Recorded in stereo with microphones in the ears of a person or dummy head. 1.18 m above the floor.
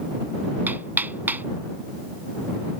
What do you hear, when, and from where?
0.7 s hammering: 10° right (ahead or behind)